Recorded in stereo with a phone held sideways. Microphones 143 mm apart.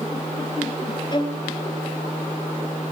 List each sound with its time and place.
1.1 s a violin: 30° left (ahead or behind), 0.9 m